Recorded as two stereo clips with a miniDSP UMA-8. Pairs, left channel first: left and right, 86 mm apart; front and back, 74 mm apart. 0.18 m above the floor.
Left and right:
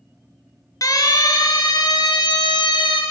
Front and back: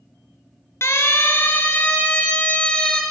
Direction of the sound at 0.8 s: 50° left.